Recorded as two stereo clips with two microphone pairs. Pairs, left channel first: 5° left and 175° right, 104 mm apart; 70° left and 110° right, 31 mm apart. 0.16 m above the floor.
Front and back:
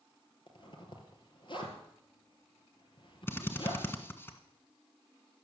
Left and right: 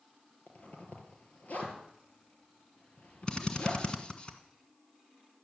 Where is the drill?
50° left, 1.5 m.